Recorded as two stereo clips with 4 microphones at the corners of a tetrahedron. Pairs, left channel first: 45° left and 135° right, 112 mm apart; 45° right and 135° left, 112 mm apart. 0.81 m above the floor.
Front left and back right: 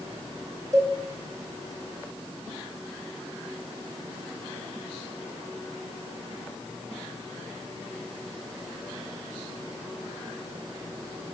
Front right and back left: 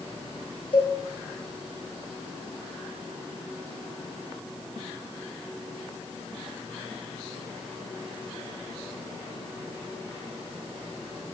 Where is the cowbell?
80° right, 1.2 m.